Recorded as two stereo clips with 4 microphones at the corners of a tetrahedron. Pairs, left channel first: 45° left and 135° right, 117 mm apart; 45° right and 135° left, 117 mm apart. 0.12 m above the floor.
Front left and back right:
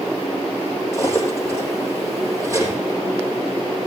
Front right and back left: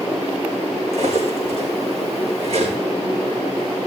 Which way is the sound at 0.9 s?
160° left.